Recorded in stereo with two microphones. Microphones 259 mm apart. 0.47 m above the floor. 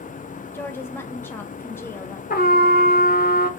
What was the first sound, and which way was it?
A woman speaking, 10° left (ahead or behind).